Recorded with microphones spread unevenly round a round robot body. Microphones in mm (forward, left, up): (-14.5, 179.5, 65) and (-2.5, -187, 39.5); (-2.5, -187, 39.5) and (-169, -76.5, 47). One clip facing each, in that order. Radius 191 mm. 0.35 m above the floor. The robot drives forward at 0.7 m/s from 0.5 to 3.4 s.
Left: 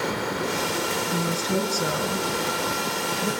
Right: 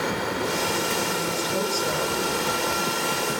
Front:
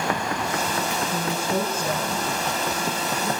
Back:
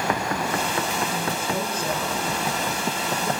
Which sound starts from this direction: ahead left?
A woman speaking, at 1.1 s.